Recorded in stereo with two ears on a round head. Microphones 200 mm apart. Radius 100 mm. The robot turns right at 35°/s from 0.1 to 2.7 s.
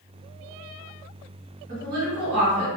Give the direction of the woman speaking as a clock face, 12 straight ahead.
4 o'clock.